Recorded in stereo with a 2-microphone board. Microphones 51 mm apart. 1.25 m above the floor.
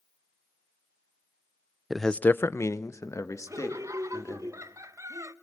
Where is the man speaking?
5° right (ahead or behind), 0.6 m; by 4.5 s 80° left, 3 m.